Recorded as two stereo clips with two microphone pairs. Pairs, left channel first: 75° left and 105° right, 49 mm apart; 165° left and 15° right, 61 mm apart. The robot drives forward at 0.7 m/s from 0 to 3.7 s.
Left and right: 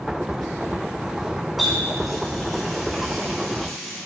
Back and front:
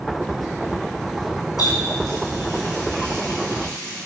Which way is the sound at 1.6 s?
165° left.